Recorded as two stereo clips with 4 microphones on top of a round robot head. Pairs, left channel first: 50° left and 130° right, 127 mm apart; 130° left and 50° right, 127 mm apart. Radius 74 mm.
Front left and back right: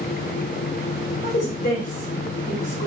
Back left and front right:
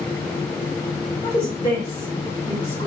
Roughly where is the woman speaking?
Left.